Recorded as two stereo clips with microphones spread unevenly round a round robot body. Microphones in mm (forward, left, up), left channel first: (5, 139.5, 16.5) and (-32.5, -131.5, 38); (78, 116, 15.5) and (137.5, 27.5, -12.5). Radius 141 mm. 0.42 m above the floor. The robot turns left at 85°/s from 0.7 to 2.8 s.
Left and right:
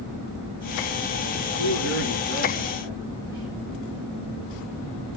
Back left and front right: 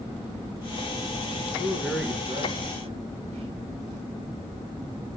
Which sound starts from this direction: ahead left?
A man speaking, at 1.6 s.